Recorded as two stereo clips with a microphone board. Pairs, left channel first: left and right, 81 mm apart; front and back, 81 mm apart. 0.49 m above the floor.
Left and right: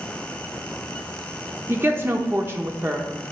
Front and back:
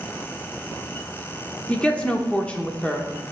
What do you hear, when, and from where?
1.7 s a woman speaking: 60° right, 0.8 m